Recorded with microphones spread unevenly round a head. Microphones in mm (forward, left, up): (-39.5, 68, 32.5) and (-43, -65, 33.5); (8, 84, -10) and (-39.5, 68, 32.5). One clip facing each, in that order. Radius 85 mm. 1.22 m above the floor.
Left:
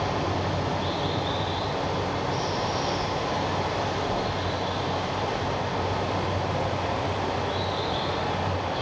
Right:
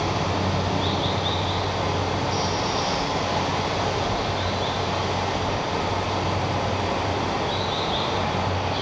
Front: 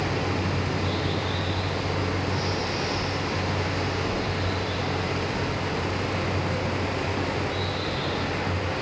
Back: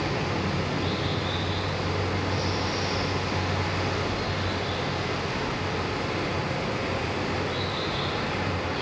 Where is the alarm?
I don't hear an alarm.